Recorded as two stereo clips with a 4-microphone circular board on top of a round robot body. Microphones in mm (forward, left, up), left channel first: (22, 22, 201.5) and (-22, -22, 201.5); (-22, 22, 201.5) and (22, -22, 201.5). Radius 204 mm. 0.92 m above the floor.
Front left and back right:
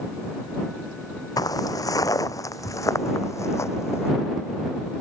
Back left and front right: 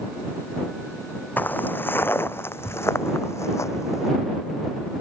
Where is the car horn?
I don't hear a car horn.